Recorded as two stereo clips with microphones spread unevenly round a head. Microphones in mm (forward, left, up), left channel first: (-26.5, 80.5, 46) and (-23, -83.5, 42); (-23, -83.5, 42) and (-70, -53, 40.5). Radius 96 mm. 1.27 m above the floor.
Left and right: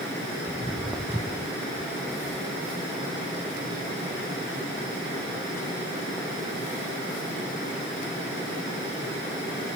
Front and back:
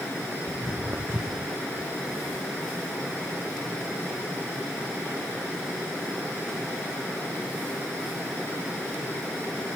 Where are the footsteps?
165° right; by 9.5 s 145° left.